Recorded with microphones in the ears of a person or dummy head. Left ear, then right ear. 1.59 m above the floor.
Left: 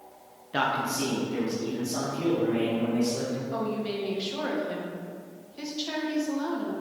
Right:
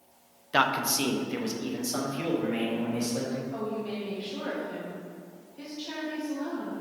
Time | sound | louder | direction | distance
0.5 | a man speaking | right 2 dB | 30° right (ahead or behind) | 0.5 m
3.5 | a woman speaking | left 3 dB | 40° left (ahead or behind) | 1.2 m